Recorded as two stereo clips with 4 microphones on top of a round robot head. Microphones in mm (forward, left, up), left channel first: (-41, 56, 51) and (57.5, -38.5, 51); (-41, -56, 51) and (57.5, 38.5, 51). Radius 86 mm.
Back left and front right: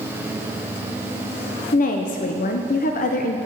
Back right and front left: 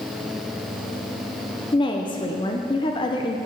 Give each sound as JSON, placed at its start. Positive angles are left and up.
{"t": 1.7, "sound": "a woman speaking", "azimuth_deg": 165, "distance_m": 0.6}